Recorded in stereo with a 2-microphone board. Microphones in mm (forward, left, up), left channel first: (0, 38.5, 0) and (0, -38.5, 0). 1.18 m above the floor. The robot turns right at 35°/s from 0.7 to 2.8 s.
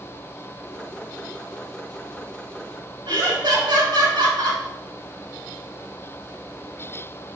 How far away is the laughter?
About 1.8 m.